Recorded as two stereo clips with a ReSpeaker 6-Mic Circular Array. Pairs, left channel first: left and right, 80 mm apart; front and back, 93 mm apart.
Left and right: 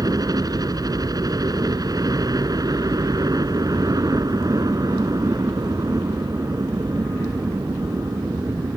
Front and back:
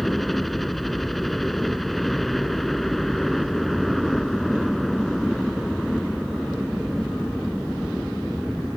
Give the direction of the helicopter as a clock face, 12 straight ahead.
3 o'clock.